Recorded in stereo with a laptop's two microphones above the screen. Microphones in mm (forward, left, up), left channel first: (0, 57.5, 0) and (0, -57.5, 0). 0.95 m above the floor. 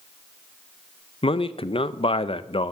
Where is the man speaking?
50° left (ahead or behind), 0.5 m.